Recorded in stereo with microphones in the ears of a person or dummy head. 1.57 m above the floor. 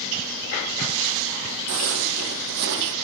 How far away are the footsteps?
About 3 m.